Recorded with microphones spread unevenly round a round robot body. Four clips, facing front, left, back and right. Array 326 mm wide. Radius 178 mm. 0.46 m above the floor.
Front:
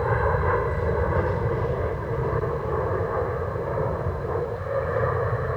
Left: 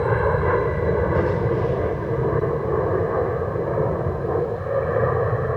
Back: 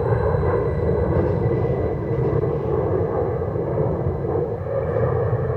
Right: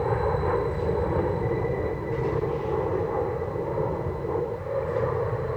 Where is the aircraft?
160° left; by 5.6 s 155° left.